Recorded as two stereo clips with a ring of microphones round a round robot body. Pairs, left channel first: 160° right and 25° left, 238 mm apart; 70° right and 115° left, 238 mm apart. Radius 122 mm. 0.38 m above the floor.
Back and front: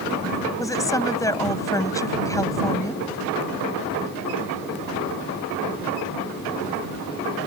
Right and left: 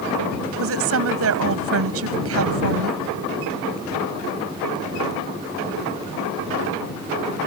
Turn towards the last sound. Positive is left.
turn(degrees=125)